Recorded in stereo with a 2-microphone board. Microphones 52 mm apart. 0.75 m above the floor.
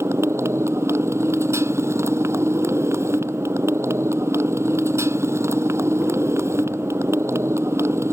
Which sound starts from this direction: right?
A motorcycle, at 0.0 s.